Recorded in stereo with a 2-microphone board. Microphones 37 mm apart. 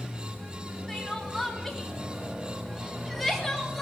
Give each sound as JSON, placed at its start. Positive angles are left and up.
{"t": 0.9, "sound": "crying", "side_deg": 5, "distance_m": 3.5}